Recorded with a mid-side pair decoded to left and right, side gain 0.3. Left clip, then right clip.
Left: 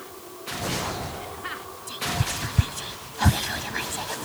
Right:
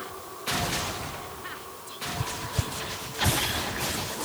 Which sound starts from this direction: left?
Whispering, at 1.9 s.